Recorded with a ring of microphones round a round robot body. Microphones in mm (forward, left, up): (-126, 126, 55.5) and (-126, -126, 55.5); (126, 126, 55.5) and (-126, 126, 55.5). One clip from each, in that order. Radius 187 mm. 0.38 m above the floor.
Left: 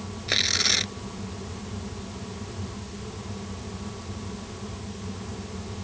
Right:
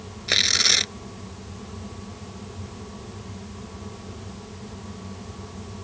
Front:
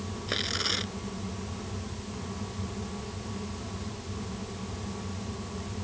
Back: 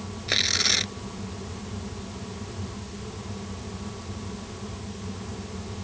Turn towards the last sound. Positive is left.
turn(degrees=-115)